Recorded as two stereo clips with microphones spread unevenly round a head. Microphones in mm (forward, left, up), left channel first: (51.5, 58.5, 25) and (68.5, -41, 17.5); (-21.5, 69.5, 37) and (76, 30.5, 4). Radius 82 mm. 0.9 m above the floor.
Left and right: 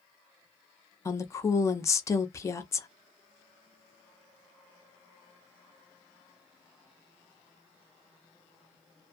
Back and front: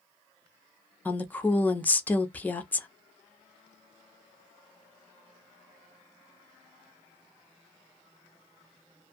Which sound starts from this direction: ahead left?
A woman speaking, at 1.1 s.